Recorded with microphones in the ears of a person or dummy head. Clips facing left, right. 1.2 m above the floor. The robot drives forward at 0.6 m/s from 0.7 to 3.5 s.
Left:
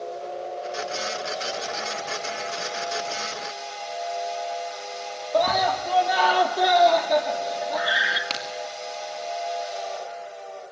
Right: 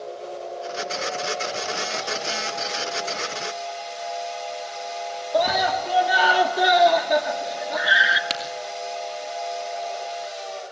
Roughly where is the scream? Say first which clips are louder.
Even; centre.